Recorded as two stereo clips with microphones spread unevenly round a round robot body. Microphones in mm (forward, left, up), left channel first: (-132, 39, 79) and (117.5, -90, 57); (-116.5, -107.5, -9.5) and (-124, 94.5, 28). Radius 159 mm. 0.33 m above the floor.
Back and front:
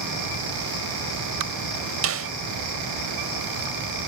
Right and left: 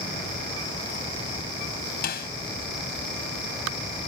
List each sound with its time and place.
2.0 s a snare drum: 50° right